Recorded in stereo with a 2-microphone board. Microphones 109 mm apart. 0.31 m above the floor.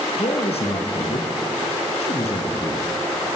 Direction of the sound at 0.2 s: 65° left (ahead or behind).